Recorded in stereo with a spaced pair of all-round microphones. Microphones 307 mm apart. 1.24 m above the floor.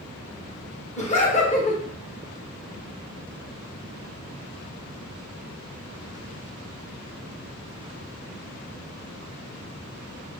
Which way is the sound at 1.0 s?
20° left (ahead or behind).